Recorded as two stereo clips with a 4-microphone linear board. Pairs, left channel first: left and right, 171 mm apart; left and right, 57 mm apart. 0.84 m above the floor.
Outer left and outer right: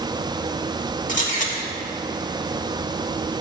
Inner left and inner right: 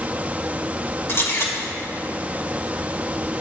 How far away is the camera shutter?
About 1.7 m.